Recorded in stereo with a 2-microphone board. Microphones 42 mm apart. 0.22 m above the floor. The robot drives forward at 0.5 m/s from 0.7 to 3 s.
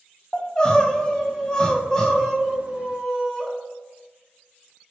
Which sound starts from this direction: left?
Crying, at 0.3 s.